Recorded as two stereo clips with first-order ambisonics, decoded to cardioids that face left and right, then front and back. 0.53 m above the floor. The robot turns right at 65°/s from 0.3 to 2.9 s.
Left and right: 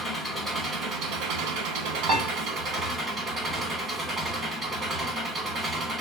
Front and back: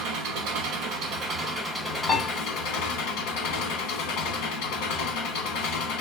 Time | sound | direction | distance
0.0 | an engine running | straight behind | 1.5 m
2.1 | a piano | 60° right | 1.5 m